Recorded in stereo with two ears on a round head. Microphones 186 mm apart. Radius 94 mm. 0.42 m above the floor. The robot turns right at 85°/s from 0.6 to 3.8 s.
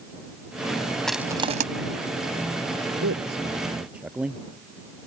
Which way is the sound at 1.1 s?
5° left (ahead or behind).